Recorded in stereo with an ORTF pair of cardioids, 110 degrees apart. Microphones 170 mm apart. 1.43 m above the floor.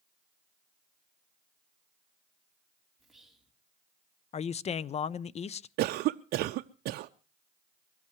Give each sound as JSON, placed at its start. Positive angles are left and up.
{"t": 3.0, "sound": "whispering", "azimuth_deg": 0, "distance_m": 4.0}
{"t": 4.3, "sound": "a man speaking", "azimuth_deg": 40, "distance_m": 0.6}
{"t": 5.8, "sound": "a cough", "azimuth_deg": -65, "distance_m": 0.6}